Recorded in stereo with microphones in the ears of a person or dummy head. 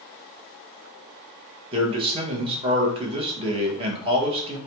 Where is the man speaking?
25° right (ahead or behind), 0.8 m.